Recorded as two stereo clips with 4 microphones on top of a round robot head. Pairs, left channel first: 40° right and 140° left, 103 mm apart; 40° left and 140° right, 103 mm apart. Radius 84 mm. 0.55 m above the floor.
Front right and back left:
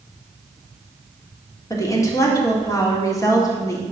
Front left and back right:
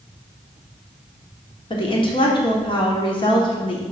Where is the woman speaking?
15° left, 1.8 m.